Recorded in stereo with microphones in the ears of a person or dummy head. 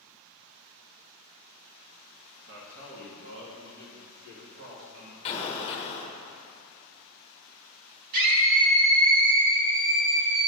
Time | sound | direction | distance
2.5 | a man speaking | 70° right (ahead or behind) | 1.2 m
5.2 | an explosion | 30° left (ahead or behind) | 0.8 m
8.1 | a scream | 50° right (ahead or behind) | 1.2 m